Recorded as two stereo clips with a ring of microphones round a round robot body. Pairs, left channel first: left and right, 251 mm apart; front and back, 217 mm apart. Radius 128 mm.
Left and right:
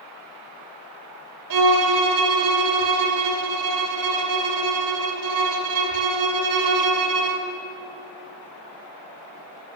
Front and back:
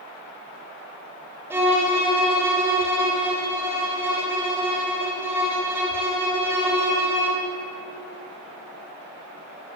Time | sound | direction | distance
1.5 | a violin | 100° right | 2.5 m